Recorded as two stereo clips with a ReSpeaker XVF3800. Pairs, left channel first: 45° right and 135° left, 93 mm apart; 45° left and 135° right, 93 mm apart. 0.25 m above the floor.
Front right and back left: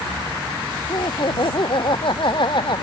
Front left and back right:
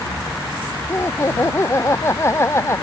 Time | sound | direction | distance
0.9 | laughter | 15° right | ?